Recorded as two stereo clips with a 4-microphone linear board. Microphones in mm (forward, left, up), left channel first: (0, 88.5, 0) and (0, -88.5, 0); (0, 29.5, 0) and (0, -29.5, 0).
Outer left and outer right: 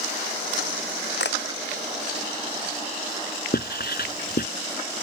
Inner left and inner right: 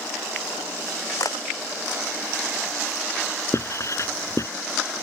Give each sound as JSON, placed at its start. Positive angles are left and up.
{"t": 1.2, "sound": "a camera shutter", "side_deg": 75}
{"t": 3.5, "sound": "writing", "side_deg": 60}